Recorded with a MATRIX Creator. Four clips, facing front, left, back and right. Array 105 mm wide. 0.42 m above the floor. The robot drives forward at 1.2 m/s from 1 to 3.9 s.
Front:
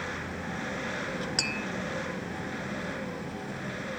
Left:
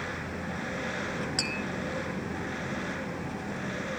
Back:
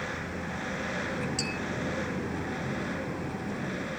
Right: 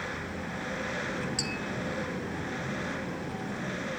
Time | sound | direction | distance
1.4 | tapping | 30° left | 1.9 m